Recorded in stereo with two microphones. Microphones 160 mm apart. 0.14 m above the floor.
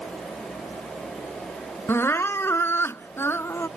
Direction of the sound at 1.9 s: 15° left (ahead or behind).